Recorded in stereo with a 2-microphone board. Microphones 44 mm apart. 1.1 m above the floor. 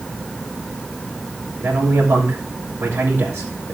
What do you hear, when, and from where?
1.6 s a man speaking: 75° right (ahead or behind), 3 m